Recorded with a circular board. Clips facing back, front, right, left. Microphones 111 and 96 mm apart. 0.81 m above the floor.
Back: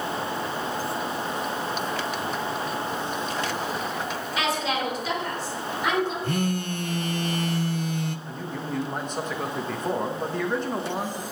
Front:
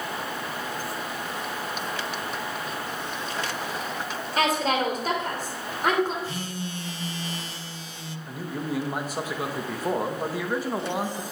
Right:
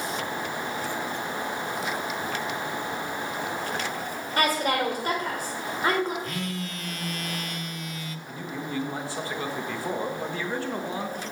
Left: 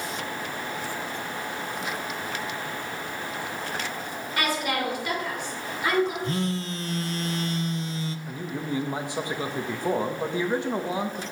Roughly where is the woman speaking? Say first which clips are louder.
Front 4 dB, right 3 dB; ahead right.